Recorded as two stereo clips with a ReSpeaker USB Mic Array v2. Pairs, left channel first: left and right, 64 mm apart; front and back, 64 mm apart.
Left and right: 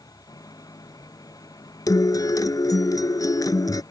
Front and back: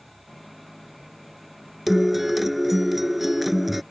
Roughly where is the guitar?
Left.